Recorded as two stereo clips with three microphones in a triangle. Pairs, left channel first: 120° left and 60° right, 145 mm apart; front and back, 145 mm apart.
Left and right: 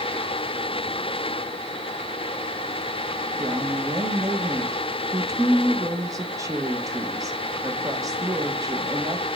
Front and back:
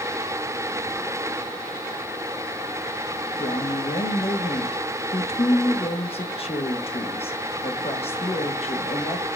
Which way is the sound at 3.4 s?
5° right.